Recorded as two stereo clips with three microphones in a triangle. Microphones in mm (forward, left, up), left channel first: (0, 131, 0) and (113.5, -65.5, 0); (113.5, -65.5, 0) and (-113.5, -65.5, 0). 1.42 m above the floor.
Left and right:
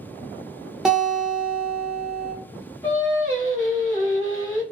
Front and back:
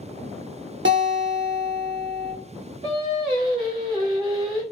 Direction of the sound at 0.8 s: 150° right.